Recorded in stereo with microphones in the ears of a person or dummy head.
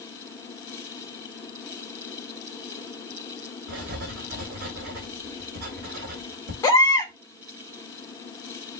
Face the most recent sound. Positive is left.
turn(degrees=25)  # may be behind; listen again after turning